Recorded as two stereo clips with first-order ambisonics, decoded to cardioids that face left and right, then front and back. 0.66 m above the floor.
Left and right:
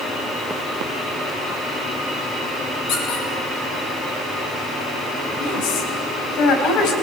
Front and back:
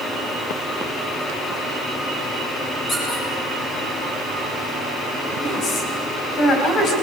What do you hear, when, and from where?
2.9 s a squeak: 60° left, 6.5 m
5.4 s a woman speaking: 55° left, 4 m